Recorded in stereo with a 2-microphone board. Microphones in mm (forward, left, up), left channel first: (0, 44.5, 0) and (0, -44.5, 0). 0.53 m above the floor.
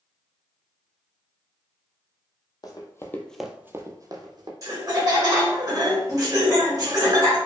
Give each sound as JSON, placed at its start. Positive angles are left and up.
{"t": 2.6, "sound": "running footsteps", "side_deg": 45, "distance_m": 0.8}
{"t": 4.6, "sound": "laughter", "side_deg": -40, "distance_m": 1.7}